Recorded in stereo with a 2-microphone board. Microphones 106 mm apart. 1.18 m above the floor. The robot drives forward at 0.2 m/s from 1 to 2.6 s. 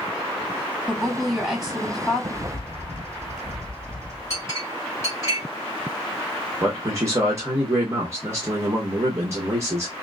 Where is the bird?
25° right (ahead or behind), 2 m.